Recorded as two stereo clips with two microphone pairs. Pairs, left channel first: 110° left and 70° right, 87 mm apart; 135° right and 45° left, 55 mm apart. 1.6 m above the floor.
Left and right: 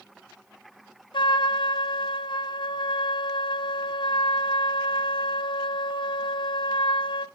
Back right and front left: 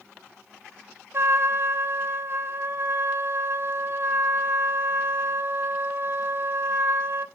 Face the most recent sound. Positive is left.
turn(degrees=90)